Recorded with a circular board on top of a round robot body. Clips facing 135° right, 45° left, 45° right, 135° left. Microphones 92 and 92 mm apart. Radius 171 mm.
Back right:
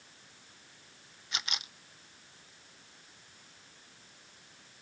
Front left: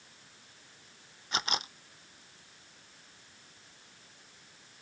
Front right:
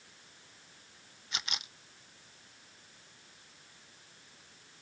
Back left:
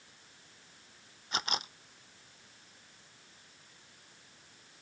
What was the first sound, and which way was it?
A camera shutter, 90° left.